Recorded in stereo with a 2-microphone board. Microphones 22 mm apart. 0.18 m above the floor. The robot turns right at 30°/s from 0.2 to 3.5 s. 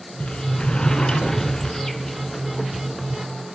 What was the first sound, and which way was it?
A sliding door, 110° left.